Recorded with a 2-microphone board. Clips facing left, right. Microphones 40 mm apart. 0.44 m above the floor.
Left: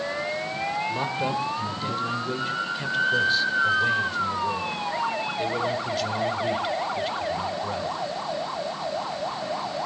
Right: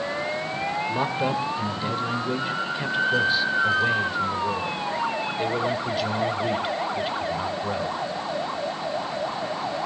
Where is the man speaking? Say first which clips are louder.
Right 2 dB; 15° right (ahead or behind), 1.6 m.